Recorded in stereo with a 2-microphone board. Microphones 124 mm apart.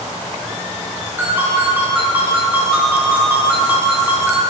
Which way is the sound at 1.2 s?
15° right (ahead or behind).